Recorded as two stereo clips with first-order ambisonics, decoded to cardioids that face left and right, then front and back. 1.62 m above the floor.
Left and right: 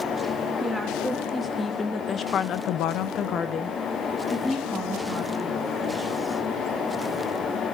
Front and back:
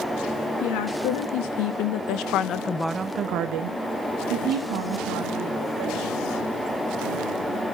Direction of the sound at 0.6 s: 5° left.